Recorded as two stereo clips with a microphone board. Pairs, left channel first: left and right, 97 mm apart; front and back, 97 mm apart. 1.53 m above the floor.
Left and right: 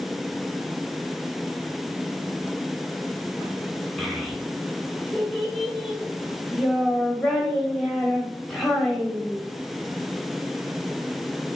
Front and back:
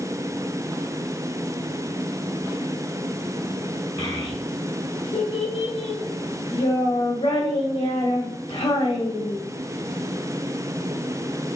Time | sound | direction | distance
4.0 | a child speaking | 5° left | 1.8 m